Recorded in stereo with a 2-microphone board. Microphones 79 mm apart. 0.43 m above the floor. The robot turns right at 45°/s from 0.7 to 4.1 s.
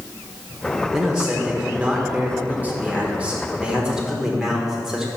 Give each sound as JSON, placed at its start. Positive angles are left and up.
{"t": 0.9, "sound": "a man speaking", "side_deg": -10, "distance_m": 1.0}